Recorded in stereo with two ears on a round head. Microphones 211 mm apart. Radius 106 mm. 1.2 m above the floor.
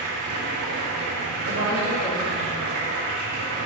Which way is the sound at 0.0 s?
65° right (ahead or behind).